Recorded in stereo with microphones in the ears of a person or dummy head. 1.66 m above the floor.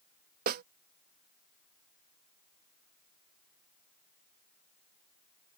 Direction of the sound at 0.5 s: 55° right (ahead or behind).